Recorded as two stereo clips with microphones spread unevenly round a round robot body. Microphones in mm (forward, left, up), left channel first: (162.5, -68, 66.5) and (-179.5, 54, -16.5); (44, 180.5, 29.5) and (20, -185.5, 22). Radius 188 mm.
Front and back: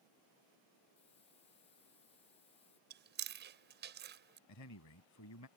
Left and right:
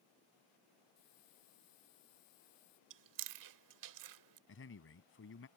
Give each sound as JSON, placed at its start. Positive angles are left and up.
{"t": 1.0, "sound": "a hiss", "azimuth_deg": 55}
{"t": 2.9, "sound": "chewing", "azimuth_deg": -135}
{"t": 4.5, "sound": "a man speaking", "azimuth_deg": 30}